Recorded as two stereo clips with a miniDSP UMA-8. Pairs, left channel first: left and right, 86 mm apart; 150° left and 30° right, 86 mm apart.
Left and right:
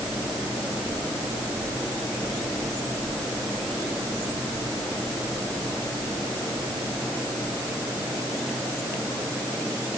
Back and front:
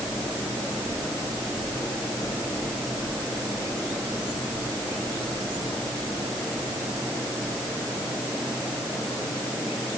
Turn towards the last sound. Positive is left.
No sound to turn to.